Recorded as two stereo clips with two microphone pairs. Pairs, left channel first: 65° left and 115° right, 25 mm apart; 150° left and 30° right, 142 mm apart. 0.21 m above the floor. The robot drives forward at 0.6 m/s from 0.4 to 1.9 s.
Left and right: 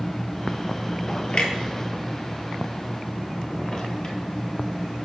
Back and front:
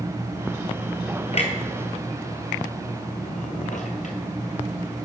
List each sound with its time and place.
1.3 s a clunk: 110° left, 1.0 m; by 4.2 s 125° left, 1.2 m